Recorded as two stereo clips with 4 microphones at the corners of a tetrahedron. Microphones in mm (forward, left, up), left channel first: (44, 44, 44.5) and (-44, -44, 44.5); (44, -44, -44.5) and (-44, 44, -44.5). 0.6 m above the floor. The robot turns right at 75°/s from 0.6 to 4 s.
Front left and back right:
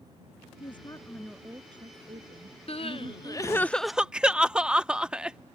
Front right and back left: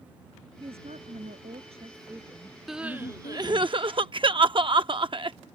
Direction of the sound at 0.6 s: 85° left.